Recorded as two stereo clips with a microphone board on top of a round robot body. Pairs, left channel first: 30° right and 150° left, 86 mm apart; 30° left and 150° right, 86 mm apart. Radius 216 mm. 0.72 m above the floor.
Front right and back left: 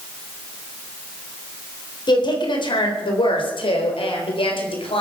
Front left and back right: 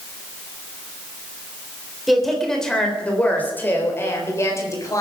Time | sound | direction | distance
2.1 | a woman speaking | 60° right | 4 m